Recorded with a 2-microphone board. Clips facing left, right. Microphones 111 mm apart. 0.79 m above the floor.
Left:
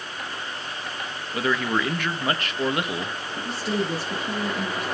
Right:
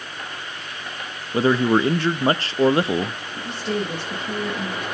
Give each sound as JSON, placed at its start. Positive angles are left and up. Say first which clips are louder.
{"t": 1.3, "sound": "a man speaking", "louder": "right 7 dB", "side_deg": -30, "distance_m": 0.6}
{"t": 3.4, "sound": "a woman speaking", "louder": "right 1 dB", "side_deg": 5, "distance_m": 7.5}